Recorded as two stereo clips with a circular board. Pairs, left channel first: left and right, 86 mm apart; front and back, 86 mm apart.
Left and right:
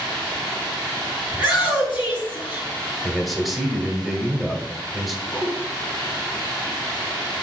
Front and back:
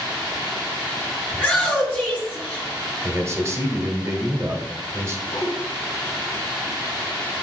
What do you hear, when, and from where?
1.3 s a shout: 80° left, 3.5 m
3.0 s a man speaking: 175° right, 1.1 m
5.3 s a whoosh: 25° left, 3.5 m